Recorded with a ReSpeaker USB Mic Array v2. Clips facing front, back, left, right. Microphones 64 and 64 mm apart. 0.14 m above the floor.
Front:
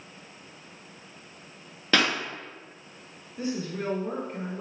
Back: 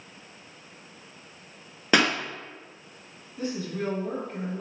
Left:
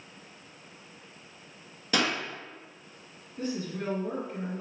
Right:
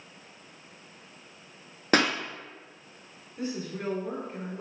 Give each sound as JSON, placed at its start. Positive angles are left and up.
{"t": 1.9, "sound": "a pop", "azimuth_deg": -110, "distance_m": 0.7}
{"t": 3.4, "sound": "a woman speaking", "azimuth_deg": -35, "distance_m": 1.5}